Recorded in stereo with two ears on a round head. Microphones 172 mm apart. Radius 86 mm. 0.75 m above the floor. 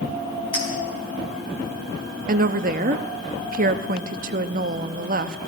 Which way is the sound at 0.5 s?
10° left (ahead or behind).